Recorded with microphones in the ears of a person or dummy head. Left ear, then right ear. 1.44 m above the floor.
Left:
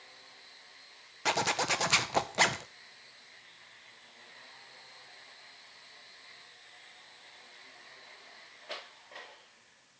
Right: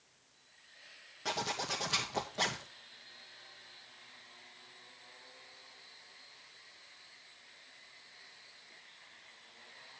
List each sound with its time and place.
1.2 s a zipper: 50° left (ahead or behind), 0.7 m